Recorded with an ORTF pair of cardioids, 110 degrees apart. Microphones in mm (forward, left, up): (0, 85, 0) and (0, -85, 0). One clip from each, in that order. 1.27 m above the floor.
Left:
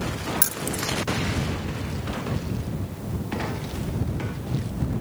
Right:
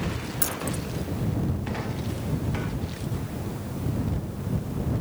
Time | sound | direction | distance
0.4 | keys jangling | 35° left | ?